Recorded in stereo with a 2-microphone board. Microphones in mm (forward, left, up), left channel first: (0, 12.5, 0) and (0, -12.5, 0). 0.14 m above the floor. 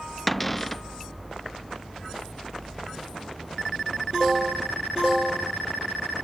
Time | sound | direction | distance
0.3 | a cupboard door | 5° left (ahead or behind) | ?